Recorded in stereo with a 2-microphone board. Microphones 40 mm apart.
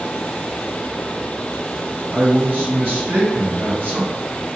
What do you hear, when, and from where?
2.1 s a man speaking: 45° right (ahead or behind), 1.9 m